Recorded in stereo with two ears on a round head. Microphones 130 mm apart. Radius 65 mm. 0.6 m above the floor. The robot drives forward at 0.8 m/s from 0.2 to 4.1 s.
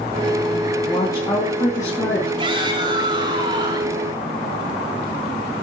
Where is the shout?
35° right (ahead or behind), 6.5 m; by 4.0 s 30° right (ahead or behind), 7.5 m.